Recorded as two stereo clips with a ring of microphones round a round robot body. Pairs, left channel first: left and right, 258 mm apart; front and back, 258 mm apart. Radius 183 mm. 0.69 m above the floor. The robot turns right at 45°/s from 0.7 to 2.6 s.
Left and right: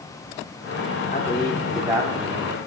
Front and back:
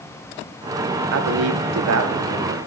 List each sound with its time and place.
1.1 s a man speaking: 155° left, 0.9 m; by 2.6 s 140° right, 0.9 m